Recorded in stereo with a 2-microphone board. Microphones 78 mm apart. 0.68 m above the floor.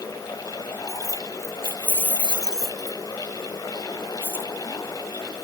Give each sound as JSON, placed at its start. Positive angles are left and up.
{"t": 0.9, "sound": "keys jangling", "side_deg": 50}